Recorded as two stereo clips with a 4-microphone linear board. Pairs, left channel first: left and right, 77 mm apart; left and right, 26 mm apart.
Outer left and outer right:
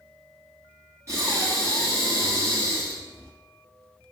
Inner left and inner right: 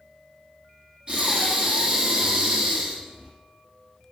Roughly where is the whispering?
I don't hear whispering.